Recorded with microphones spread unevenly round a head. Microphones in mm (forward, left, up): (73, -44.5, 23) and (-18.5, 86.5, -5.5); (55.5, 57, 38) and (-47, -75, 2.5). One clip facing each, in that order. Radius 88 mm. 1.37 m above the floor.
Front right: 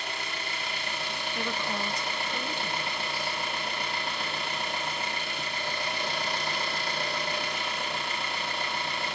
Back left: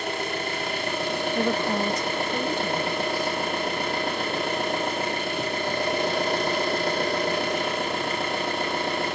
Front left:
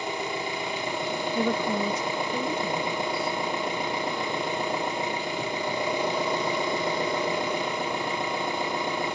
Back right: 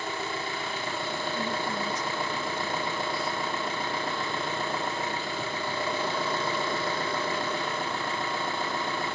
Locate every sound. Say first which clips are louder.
0.0 s an engine running: back left 9 dB, front left 3 dB; 100° left, 1.1 m
1.4 s a woman speaking: back left 8 dB, front left 9 dB; 75° left, 0.6 m